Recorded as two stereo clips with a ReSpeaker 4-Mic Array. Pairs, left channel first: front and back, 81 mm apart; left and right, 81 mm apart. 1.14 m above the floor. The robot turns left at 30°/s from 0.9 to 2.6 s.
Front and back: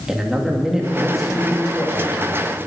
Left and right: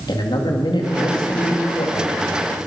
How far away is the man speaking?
About 2.5 m.